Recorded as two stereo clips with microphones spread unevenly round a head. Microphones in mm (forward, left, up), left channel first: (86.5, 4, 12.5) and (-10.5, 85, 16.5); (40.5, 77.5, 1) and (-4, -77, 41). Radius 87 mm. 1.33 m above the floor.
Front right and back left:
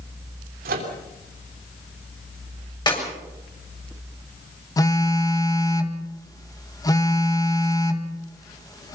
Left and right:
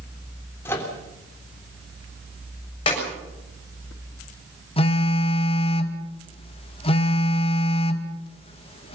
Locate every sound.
0.7 s a microwave: 155° left, 3 m
2.9 s a clap: 15° left, 7 m
4.8 s a phone buzzing: 20° left, 2 m